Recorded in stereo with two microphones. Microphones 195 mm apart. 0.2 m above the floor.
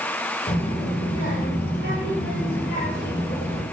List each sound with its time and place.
0.5 s a child speaking: 50° left (ahead or behind), 4 m